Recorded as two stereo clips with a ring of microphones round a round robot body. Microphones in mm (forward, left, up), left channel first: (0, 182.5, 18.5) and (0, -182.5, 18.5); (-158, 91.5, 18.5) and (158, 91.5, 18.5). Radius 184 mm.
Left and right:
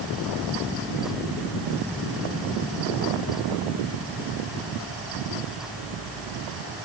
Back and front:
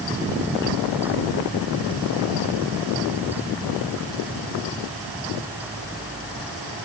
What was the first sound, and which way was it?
Only background noise.